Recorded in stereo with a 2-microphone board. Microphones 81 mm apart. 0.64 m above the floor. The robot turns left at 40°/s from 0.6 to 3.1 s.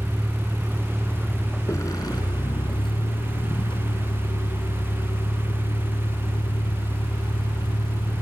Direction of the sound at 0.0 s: 175° right.